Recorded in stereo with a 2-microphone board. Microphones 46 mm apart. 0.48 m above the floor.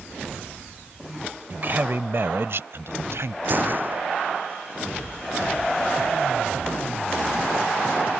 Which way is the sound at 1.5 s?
45° right (ahead or behind).